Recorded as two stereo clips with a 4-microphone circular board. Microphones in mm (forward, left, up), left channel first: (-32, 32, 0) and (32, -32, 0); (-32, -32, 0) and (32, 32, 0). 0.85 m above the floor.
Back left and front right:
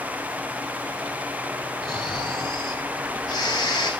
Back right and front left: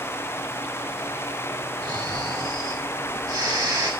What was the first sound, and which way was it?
Snoring, 90° left.